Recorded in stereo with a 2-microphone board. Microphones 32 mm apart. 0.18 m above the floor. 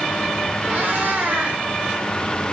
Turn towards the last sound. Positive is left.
turn(degrees=-55)  # may be behind; listen again after turning